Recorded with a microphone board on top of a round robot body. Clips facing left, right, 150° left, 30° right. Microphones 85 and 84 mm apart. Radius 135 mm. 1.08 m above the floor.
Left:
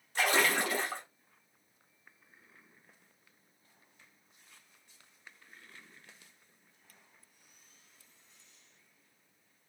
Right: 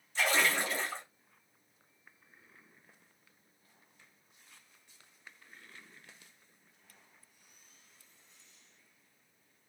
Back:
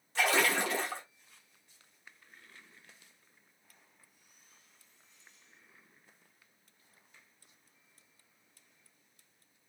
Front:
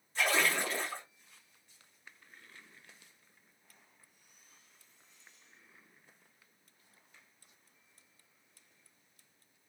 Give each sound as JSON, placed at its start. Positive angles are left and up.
{"t": 0.1, "sound": "a splash", "azimuth_deg": 130, "distance_m": 0.8}